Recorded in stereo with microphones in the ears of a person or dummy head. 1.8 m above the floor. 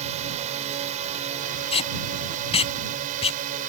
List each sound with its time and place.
0.0 s a drone: 35° right (ahead or behind); by 3.7 s 45° right (ahead or behind)
1.7 s tape being pulled: 35° left (ahead or behind)